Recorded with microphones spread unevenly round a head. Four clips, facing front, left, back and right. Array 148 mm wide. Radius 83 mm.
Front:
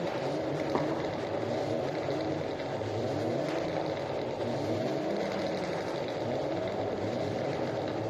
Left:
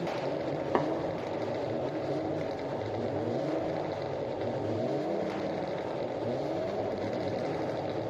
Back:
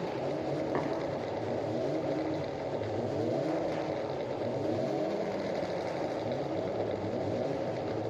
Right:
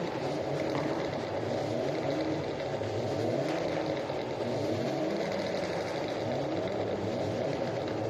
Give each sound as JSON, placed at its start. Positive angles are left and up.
{"t": 0.8, "sound": "tapping", "azimuth_deg": 75, "distance_m": 2.5}